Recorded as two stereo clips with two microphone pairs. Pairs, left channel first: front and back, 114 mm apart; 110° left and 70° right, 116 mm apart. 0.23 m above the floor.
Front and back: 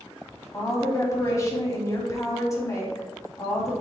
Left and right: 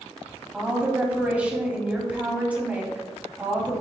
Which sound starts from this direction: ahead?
A woman speaking, at 0.5 s.